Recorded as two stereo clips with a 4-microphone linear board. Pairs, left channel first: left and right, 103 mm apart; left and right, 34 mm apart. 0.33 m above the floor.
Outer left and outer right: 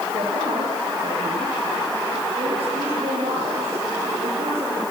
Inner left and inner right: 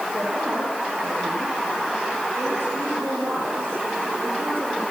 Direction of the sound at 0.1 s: 80° right.